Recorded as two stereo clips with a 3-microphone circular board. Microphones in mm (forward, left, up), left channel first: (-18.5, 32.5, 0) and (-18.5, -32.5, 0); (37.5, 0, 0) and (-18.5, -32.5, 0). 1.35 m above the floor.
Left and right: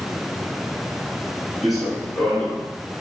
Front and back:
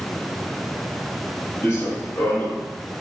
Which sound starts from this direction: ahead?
Running footsteps, at 1.6 s.